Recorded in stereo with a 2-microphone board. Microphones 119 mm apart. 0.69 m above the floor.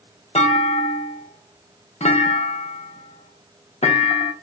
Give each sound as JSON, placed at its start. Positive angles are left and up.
{"t": 0.3, "sound": "a clunk", "side_deg": 70, "distance_m": 0.6}